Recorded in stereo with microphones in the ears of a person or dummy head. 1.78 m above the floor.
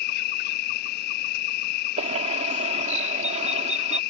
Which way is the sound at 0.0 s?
60° left (ahead or behind).